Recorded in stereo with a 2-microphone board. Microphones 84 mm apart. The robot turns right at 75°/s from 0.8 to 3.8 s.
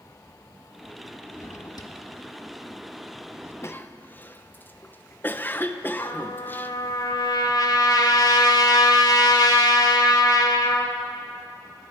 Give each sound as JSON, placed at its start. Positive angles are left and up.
{"t": 1.4, "sound": "a drawer", "side_deg": 35, "distance_m": 1.0}
{"t": 3.6, "sound": "a cough", "side_deg": 35, "distance_m": 0.9}
{"t": 6.0, "sound": "a trumpet", "side_deg": 55, "distance_m": 1.4}